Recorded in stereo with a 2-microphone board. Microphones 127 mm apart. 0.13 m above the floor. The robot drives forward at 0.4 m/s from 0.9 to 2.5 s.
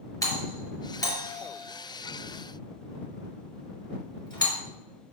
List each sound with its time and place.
0.2 s a doorbell: 25° left (ahead or behind), 3 m; by 4.6 s 30° left (ahead or behind), 2.5 m